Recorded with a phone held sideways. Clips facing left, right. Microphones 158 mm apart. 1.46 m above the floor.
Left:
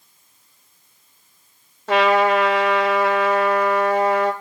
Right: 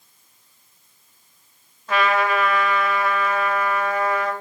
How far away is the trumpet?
About 2.5 m.